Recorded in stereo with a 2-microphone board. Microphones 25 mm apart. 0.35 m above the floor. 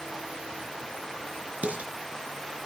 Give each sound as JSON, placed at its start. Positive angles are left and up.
{"t": 1.6, "sound": "dishes clattering", "side_deg": -80, "distance_m": 3.5}